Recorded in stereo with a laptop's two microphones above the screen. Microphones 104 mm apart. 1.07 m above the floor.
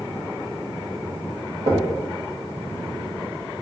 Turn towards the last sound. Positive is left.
turn(degrees=-70)  # may be behind; listen again after turning